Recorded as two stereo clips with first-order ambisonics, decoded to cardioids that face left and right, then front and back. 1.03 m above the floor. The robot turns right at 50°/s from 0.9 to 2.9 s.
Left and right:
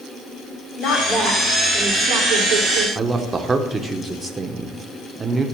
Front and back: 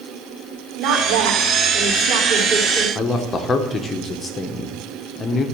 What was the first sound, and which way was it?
A woman speaking, 145° left.